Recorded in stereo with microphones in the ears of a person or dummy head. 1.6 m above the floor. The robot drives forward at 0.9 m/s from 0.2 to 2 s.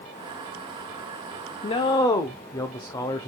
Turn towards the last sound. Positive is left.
turn(degrees=20)  # may be behind; listen again after turning